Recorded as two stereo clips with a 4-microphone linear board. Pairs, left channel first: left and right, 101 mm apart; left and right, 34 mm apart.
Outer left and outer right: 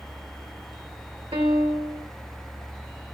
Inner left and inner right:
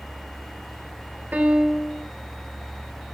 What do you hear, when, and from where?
1.3 s a piano: 80° right, 3 m